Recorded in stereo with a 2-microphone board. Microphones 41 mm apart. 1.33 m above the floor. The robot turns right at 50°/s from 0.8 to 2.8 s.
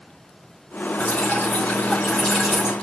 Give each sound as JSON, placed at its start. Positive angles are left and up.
{"t": 1.0, "sound": "dripping", "azimuth_deg": 105, "distance_m": 5.5}